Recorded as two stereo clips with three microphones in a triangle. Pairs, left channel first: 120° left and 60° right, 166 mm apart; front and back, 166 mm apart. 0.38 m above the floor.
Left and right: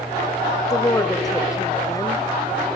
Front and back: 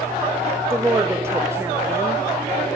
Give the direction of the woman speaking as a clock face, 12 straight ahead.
8 o'clock.